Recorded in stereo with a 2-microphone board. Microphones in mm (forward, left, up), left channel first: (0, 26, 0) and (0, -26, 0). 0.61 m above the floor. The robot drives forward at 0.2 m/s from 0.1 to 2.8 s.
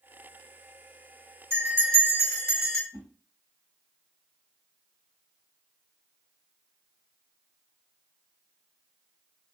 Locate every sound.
1.5 s a bell: 45° right (ahead or behind), 2.0 m; by 2.8 s 40° right (ahead or behind), 2 m
2.9 s a whoosh: 65° right (ahead or behind), 1.2 m